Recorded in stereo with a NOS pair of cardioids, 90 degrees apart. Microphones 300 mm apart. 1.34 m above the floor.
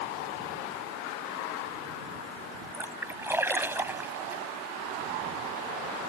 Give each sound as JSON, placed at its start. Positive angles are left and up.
{"t": 2.7, "sound": "a splash", "azimuth_deg": -10}